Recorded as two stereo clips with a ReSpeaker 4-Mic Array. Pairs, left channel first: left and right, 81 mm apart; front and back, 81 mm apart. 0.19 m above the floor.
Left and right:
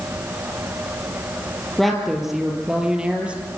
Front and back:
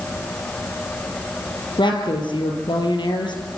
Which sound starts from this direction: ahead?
A woman speaking, at 1.8 s.